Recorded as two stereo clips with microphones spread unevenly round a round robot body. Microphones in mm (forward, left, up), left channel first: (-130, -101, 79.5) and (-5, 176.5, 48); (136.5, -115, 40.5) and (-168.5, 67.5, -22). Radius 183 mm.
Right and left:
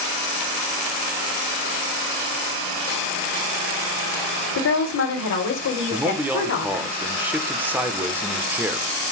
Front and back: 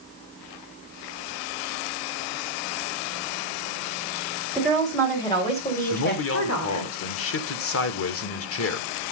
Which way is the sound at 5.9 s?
Straight ahead.